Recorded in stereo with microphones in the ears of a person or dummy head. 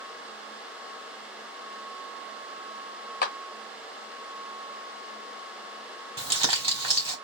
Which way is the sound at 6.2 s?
30° right (ahead or behind).